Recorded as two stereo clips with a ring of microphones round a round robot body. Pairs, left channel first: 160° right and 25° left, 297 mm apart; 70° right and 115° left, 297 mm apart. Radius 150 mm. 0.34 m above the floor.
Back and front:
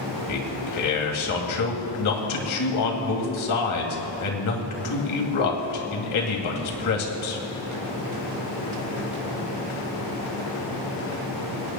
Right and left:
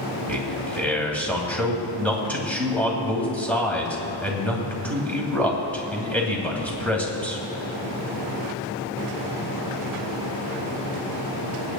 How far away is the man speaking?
About 2.5 m.